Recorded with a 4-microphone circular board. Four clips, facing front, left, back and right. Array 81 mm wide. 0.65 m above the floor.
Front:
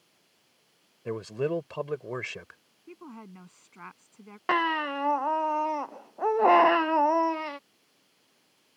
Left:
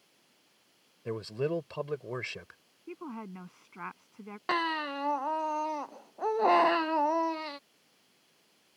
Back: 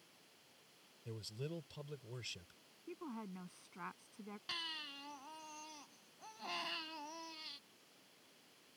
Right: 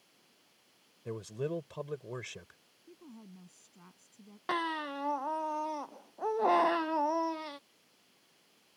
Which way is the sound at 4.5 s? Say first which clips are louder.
Left 3 dB, front 30 dB; 10° left.